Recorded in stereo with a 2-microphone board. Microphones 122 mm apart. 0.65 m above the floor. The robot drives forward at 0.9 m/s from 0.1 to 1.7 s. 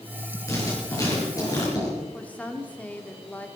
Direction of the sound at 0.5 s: 25° left (ahead or behind).